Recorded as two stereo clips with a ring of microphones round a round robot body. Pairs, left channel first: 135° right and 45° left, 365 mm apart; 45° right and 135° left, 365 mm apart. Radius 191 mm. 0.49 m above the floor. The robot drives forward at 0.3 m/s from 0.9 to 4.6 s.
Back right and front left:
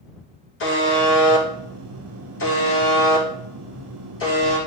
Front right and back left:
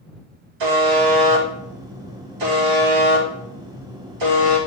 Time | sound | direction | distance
0.6 | a buzzer | 165° left | 3 m